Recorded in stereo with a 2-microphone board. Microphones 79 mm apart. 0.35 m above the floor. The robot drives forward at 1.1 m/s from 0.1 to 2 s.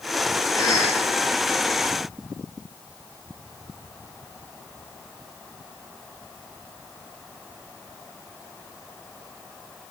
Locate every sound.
0.6 s a cough: 55° left (ahead or behind), 9 m